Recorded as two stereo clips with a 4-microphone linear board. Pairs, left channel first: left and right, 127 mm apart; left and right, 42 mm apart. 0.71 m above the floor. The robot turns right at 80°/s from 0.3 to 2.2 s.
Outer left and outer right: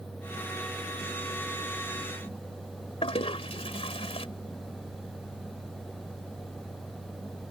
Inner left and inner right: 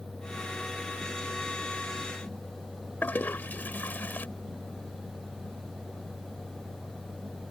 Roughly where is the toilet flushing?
Left.